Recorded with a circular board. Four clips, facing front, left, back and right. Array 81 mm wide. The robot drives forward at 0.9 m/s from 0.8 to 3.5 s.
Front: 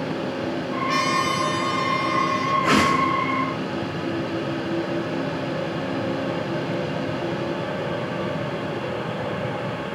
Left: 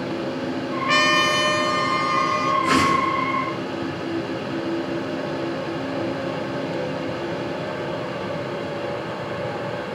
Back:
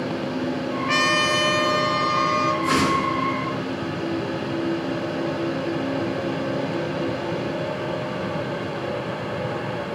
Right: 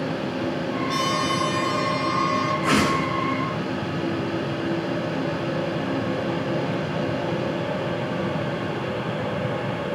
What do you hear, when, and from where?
0.9 s a trumpet: 105° left, 0.8 m; by 2.5 s 155° left, 1.9 m
2.6 s a whoosh: 30° right, 7.5 m; by 3.1 s 35° right, 7 m